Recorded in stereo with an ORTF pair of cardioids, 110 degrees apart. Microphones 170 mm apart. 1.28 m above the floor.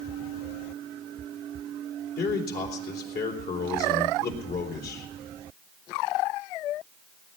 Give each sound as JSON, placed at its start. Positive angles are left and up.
{"t": 2.2, "sound": "a man speaking", "azimuth_deg": 60, "distance_m": 3.5}